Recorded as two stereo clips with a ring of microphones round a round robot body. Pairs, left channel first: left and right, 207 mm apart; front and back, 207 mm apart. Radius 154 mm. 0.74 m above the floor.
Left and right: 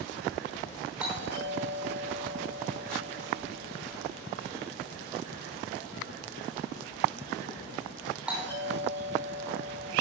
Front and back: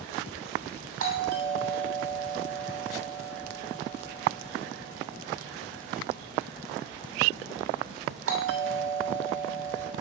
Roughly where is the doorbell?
Behind.